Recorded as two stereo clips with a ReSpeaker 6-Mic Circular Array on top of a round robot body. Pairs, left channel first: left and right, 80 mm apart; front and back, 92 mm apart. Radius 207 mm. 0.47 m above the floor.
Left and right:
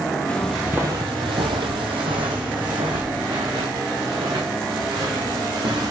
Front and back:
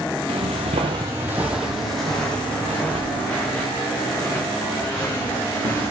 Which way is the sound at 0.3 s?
165° left.